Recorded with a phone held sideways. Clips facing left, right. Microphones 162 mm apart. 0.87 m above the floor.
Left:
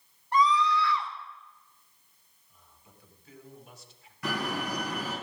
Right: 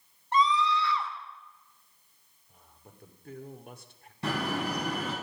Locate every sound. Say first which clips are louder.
0.3 s a scream: left 1 dB; 25° right (ahead or behind), 3 m
2.5 s a man speaking: right 4 dB; 50° right (ahead or behind), 2.5 m
4.2 s a door slam: right 2 dB; 30° right (ahead or behind), 6 m